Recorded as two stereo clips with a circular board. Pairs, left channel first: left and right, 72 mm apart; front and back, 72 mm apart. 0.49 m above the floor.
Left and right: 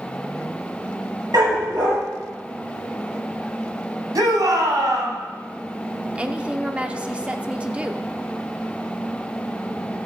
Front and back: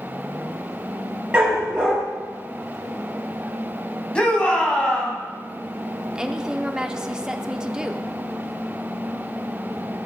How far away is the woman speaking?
About 0.7 m.